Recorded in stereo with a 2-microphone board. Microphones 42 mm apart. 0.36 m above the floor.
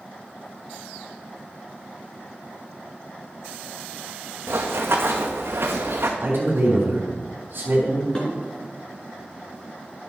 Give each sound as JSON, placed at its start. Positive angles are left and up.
{"t": 4.5, "sound": "running footsteps", "side_deg": -80, "distance_m": 1.6}
{"t": 6.2, "sound": "a man speaking", "side_deg": -60, "distance_m": 3.0}
{"t": 8.2, "sound": "dishes clattering", "side_deg": 25, "distance_m": 3.0}